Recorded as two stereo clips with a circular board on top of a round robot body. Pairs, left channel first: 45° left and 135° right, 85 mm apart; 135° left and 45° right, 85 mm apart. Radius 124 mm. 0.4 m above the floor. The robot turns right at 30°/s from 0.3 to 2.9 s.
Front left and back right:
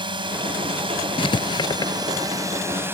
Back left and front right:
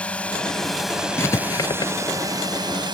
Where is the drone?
150° right; by 3.0 s 70° right.